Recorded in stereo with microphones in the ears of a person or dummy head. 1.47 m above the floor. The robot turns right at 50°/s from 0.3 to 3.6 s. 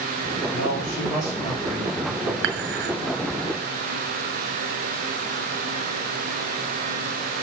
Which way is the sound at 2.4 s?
75° right (ahead or behind).